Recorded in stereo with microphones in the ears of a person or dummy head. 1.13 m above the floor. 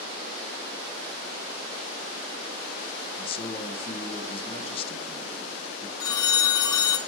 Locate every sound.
3.2 s a man speaking: 35° left (ahead or behind), 1.0 m
6.0 s a phone ringing: 25° left (ahead or behind), 0.9 m